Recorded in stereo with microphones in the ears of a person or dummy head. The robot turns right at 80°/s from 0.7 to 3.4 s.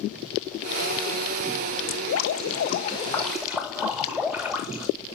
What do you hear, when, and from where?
1.9 s dripping: 65° left, 1.9 m; by 4.9 s 175° right, 1.9 m